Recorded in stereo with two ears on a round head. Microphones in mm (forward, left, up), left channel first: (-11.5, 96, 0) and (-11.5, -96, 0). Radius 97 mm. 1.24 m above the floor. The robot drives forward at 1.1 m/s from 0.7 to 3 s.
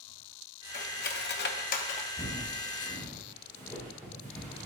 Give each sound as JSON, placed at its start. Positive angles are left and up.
{"t": 0.7, "sound": "cutlery clinking", "side_deg": 35, "distance_m": 1.0}
{"t": 2.2, "sound": "footsteps", "side_deg": 30, "distance_m": 5.0}